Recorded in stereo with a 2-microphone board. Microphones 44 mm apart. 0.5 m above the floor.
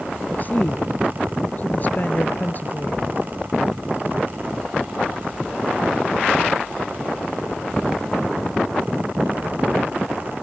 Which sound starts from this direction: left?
A woman speaking, at 0.3 s.